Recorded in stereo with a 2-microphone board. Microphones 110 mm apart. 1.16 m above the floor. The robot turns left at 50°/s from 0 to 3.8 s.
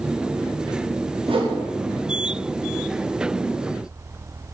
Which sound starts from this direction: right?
A whoosh, at 1.3 s.